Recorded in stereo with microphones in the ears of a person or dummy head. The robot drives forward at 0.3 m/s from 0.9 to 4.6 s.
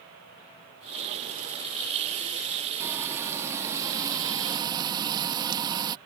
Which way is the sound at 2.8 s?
15° right (ahead or behind).